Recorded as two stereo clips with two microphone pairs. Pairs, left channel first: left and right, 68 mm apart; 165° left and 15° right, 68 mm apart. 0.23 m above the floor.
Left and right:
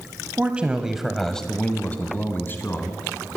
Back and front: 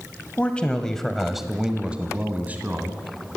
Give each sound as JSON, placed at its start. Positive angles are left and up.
{"t": 0.4, "sound": "a man speaking", "azimuth_deg": -140, "distance_m": 1.3}